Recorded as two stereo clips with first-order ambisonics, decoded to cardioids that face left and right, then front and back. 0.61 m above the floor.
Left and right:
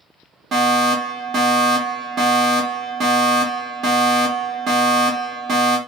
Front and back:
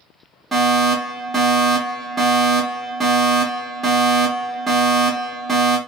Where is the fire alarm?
105° right, 1.6 m.